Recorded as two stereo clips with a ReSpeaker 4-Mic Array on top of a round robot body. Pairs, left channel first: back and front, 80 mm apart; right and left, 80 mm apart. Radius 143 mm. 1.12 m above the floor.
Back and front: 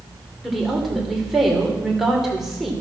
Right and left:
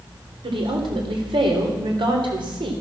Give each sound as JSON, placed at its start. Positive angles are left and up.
{"t": 0.4, "sound": "a woman speaking", "azimuth_deg": 85, "distance_m": 3.5}